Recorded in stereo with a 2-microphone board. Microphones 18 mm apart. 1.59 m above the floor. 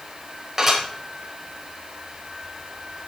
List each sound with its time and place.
0.6 s dishes clattering: 15° right (ahead or behind), 4.5 m